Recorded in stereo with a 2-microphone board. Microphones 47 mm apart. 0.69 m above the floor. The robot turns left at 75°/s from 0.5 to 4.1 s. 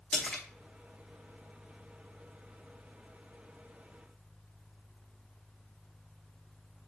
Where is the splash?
20° left (ahead or behind), 1.0 m.